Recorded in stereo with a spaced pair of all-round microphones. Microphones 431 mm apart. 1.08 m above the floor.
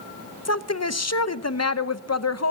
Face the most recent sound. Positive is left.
turn(degrees=35)  # may be behind; listen again after turning